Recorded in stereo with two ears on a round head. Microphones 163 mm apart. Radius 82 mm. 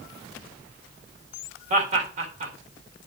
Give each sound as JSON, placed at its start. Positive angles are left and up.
{"t": 1.7, "sound": "laughter", "side_deg": -45, "distance_m": 3.5}